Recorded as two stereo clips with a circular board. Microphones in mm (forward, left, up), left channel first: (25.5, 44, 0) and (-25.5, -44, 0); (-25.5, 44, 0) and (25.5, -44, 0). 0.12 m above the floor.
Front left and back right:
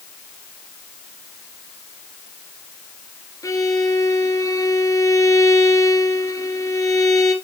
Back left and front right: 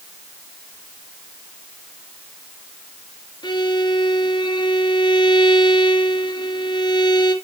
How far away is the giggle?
No giggle in this recording.